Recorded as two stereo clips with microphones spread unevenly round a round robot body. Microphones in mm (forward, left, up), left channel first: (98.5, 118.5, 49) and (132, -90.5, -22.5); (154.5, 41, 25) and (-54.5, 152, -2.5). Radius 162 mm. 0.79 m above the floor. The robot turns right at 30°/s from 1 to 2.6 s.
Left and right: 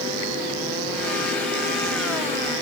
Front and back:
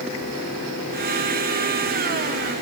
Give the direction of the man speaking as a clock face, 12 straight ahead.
I don't hear a man speaking.